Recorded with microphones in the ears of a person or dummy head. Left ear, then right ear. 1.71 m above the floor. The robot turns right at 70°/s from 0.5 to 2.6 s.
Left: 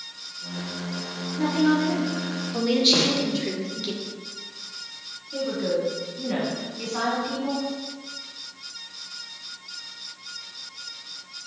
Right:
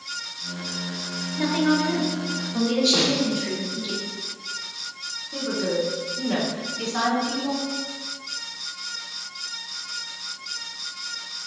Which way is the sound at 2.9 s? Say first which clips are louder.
Right 1 dB; 65° left (ahead or behind).